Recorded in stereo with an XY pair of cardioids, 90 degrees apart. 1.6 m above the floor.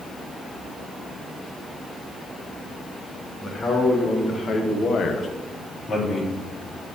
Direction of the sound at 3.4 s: 45° left.